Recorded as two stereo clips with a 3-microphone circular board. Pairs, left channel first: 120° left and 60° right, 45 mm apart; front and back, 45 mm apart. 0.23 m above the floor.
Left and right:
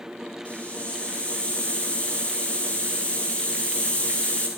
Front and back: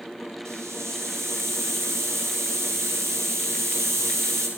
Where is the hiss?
Straight behind, 8 m.